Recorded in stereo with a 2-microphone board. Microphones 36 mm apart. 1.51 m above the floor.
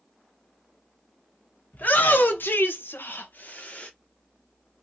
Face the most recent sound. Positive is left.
turn(degrees=35)  # may be behind; listen again after turning